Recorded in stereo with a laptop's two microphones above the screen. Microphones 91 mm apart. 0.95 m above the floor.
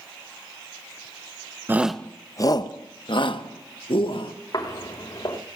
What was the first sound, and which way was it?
A shout, 20° right (ahead or behind).